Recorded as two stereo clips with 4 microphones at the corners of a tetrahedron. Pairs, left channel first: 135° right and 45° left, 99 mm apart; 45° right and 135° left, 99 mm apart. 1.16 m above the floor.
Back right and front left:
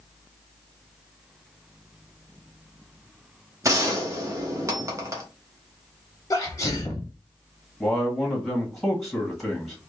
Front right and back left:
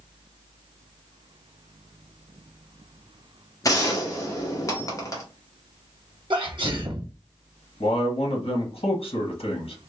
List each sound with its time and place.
3.6 s a gunshot: 5° right, 0.8 m
6.3 s a sneeze: 175° left, 0.6 m
7.8 s a man speaking: 45° right, 1.1 m